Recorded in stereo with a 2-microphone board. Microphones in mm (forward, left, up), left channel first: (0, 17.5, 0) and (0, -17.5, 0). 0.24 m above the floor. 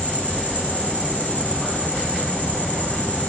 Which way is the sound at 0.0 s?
50° left (ahead or behind).